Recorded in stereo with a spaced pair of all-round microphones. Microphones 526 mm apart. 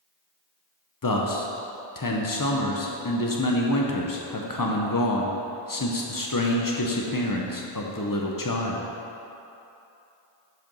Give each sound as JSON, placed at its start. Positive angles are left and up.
{"t": 1.0, "sound": "a man speaking", "side_deg": 40, "distance_m": 0.7}